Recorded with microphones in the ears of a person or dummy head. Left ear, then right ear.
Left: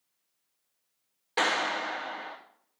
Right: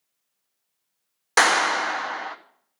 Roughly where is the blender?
I don't hear a blender.